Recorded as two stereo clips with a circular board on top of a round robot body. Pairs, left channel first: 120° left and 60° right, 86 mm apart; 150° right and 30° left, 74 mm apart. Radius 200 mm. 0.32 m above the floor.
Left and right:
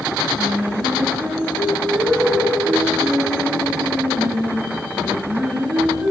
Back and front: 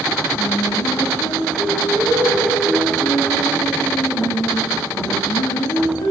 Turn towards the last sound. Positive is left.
turn(degrees=-145)